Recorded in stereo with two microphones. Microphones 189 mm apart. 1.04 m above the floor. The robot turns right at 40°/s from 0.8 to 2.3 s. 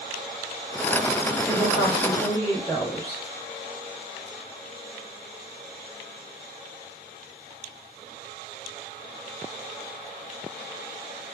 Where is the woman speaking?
20° right, 2 m; by 3.2 s 10° left, 2 m.